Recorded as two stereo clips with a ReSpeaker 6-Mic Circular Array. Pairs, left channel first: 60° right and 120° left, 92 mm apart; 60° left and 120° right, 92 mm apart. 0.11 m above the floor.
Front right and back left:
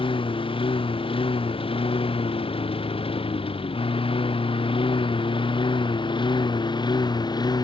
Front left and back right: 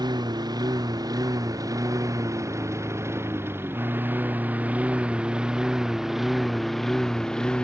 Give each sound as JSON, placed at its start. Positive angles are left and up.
{"t": 0.0, "sound": "a lawn mower", "azimuth_deg": -80}